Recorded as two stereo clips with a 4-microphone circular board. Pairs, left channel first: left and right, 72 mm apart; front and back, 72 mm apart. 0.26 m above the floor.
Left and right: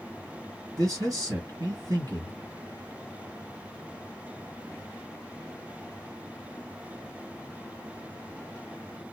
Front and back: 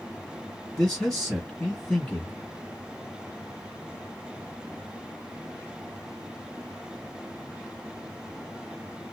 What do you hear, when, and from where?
0.8 s a man speaking: 70° right, 1.8 m